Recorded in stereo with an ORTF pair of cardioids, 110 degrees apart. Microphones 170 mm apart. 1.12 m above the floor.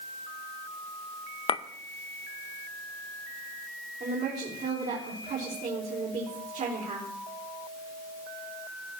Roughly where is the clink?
Ahead left.